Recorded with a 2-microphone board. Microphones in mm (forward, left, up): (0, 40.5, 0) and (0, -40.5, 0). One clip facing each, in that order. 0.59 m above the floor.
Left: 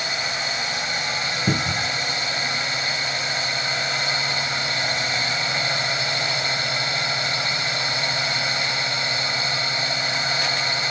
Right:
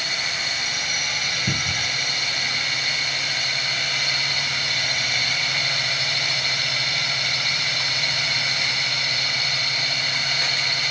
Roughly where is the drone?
Left.